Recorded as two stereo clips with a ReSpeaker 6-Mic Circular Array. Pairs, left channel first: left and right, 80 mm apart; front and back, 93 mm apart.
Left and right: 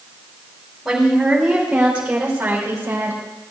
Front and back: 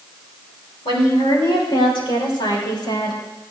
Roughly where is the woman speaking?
Ahead.